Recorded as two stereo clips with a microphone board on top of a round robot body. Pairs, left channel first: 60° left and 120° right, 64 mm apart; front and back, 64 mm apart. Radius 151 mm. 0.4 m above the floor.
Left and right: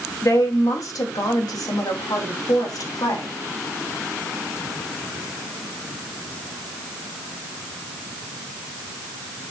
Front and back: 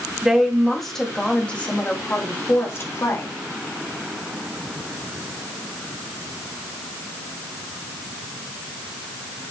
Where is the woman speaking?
95° left, 3 m; by 3.3 s 45° left, 3.5 m.